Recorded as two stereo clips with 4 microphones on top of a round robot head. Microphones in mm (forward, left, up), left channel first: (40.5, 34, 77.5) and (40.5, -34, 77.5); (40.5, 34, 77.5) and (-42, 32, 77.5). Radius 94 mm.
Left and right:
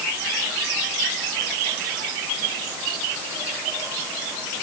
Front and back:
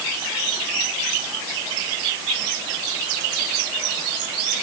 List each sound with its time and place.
Only background noise.